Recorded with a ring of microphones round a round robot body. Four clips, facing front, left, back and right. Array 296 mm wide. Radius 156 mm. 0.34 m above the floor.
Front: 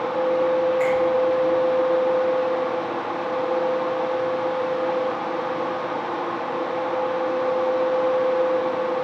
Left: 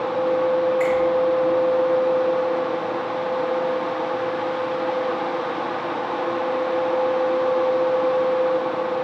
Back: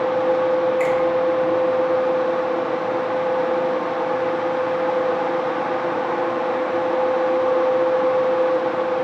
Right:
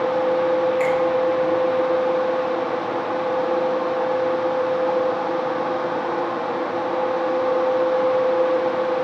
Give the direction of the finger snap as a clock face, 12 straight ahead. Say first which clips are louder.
Even, back 1 dB; 5 o'clock.